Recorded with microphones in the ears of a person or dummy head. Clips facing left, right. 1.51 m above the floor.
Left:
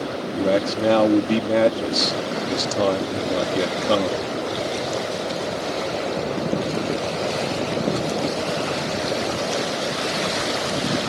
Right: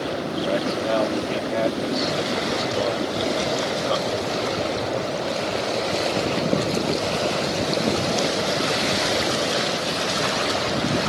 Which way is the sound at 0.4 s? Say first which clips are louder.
Left 5 dB; 65° left (ahead or behind).